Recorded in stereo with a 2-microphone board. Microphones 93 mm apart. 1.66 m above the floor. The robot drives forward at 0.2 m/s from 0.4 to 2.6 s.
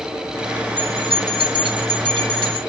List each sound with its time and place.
0.8 s a bell: 65° right (ahead or behind), 2 m; by 2.6 s 55° right (ahead or behind), 2 m